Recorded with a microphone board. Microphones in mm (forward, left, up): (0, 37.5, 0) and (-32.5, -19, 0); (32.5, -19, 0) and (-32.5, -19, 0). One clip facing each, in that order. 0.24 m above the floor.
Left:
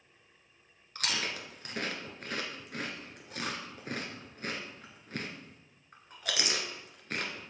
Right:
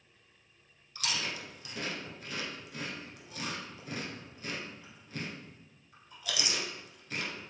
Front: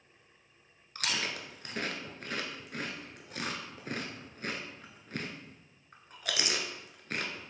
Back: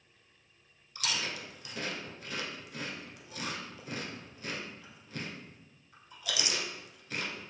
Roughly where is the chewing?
Ahead left.